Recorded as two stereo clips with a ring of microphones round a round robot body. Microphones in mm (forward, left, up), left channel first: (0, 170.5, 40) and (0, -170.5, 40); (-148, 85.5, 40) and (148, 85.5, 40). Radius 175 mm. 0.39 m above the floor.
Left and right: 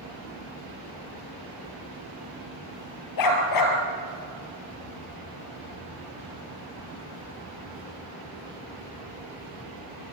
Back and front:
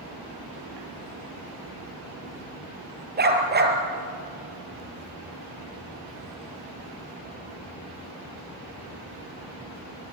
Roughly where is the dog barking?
Ahead left.